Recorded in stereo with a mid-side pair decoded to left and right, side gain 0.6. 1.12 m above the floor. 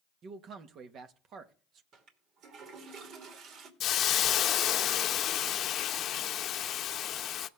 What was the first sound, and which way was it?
A man speaking, 50° right.